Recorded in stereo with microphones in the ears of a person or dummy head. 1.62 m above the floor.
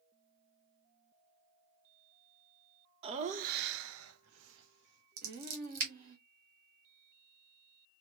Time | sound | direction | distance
3.0 | laughter | 30° right (ahead or behind) | 0.7 m
5.2 | scissors | 50° right (ahead or behind) | 2.5 m